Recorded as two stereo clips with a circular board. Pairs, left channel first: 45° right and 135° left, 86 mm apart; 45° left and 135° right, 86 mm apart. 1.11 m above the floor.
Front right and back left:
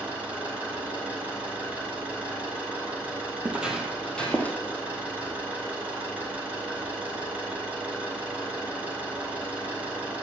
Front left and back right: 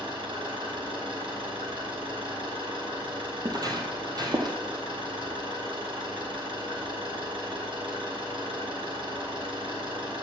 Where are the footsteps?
155° right, 1.6 m; by 4.6 s 110° right, 2 m.